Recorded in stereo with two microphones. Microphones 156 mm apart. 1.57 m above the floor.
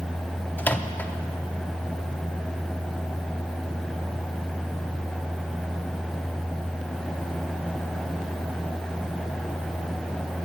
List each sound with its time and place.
0.6 s a microwave: 10° left (ahead or behind), 0.5 m